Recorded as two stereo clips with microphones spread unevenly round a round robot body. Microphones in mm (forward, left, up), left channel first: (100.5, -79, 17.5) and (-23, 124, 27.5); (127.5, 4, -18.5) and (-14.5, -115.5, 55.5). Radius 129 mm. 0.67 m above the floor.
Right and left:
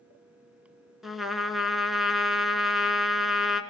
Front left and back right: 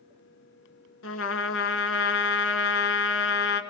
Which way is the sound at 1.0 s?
35° left.